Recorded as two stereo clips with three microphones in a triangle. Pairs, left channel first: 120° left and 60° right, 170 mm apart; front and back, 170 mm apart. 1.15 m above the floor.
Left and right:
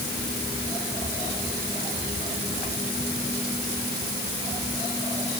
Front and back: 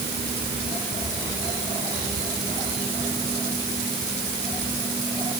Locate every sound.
Only background noise.